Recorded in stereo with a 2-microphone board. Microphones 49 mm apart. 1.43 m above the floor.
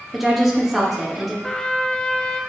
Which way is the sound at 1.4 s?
15° left (ahead or behind).